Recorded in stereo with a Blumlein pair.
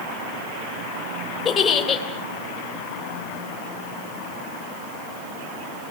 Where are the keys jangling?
I don't hear keys jangling.